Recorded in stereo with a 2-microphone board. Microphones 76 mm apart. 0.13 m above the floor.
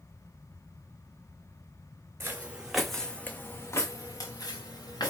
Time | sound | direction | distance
2.2 | footsteps | 25° right (ahead or behind) | 0.8 m